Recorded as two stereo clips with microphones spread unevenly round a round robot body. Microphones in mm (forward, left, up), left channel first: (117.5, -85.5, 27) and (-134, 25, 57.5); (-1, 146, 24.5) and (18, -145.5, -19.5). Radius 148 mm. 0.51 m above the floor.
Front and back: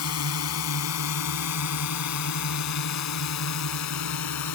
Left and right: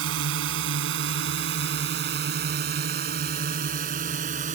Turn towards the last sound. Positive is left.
turn(degrees=-25)